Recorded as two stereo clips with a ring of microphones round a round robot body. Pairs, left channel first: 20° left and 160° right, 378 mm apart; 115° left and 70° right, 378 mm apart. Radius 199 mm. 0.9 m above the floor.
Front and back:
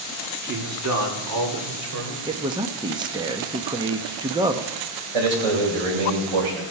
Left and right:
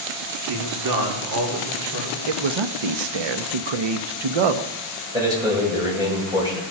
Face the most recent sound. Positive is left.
turn(degrees=-150)